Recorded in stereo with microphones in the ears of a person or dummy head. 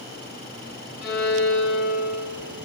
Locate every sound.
1.0 s a violin: 75° left (ahead or behind), 6 m